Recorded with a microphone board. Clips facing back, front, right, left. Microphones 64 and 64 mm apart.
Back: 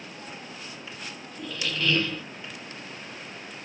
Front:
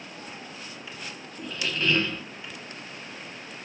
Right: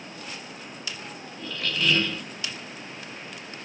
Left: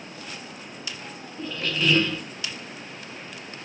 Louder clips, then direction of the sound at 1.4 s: Front 1 dB, left 2 dB; 40° left.